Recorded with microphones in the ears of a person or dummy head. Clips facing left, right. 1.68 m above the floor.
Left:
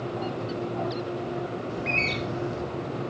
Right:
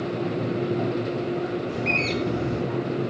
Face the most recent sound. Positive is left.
turn(degrees=-55)  # may be behind; listen again after turning